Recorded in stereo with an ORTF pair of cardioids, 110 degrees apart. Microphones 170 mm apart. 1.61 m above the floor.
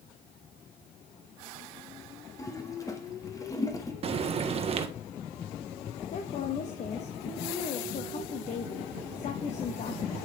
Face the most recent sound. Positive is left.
turn(degrees=45)